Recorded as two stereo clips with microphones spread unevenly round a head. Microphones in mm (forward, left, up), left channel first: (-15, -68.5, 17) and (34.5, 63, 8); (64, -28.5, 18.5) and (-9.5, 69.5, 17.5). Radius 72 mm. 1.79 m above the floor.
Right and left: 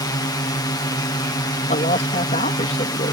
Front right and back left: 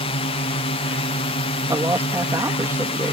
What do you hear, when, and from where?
0.0 s a drone: 55° right
1.7 s a man speaking: 160° right